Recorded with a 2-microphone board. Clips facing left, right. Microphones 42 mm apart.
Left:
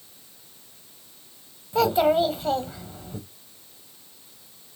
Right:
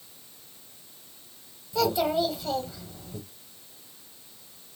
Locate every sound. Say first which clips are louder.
1.7 s a child speaking: left 5 dB; 35° left (ahead or behind), 0.7 m